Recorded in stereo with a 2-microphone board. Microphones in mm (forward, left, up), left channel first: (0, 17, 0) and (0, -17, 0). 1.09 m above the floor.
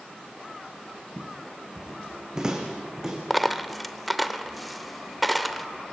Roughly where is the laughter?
No laughter in this recording.